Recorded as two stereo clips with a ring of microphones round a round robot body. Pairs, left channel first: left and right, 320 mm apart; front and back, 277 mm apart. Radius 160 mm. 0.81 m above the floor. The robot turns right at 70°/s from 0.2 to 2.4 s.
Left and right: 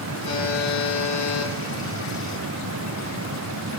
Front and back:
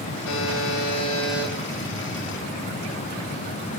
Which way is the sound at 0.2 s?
15° left.